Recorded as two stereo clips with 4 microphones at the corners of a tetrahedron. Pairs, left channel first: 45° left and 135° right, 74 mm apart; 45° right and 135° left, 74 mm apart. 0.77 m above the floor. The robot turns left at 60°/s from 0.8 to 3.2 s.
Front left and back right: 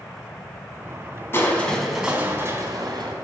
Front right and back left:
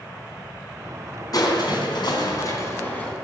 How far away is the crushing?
About 4 m.